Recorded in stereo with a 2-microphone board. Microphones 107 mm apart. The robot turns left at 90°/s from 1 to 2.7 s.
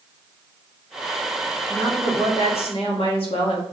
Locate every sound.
1.7 s a woman speaking: 155° left, 1.5 m; by 3.6 s 65° left, 1.5 m